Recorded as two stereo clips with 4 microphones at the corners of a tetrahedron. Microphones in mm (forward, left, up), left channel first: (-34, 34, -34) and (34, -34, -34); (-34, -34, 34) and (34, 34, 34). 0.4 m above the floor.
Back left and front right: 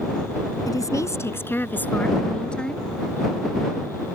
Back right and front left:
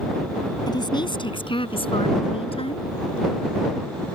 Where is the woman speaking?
175° right; by 2.9 s 140° right.